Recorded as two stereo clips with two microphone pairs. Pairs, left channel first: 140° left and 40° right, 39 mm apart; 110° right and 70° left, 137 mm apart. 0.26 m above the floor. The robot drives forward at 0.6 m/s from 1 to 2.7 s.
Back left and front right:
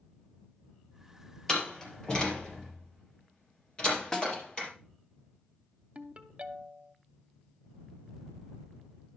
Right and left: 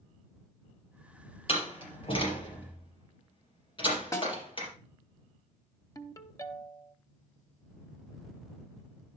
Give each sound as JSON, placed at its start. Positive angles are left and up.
{"t": 1.5, "sound": "a door slam", "azimuth_deg": -150, "distance_m": 4.0}
{"t": 4.1, "sound": "a snare drum", "azimuth_deg": -155, "distance_m": 2.0}
{"t": 6.0, "sound": "a ringtone", "azimuth_deg": -60, "distance_m": 0.7}